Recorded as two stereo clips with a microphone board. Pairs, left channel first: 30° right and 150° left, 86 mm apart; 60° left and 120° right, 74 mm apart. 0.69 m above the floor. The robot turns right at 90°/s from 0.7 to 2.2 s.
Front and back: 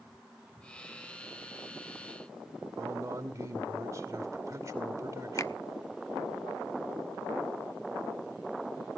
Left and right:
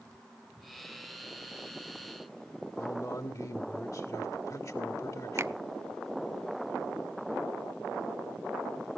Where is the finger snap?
75° right, 0.6 m.